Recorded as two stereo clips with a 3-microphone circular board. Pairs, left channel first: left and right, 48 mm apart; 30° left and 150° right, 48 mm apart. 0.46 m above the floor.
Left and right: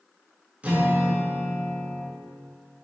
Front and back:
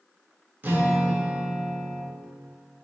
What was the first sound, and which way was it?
A guitar, 140° right.